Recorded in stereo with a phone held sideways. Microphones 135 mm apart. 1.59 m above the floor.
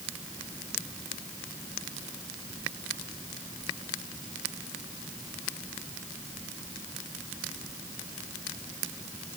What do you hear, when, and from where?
Only background noise.